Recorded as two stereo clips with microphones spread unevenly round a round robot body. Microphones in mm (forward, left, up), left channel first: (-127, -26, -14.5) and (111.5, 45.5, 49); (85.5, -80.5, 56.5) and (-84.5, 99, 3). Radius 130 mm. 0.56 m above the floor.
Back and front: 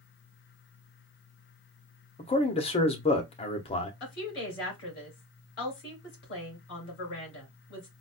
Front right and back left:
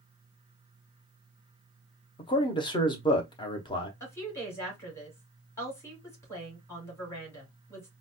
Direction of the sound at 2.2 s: 125° right.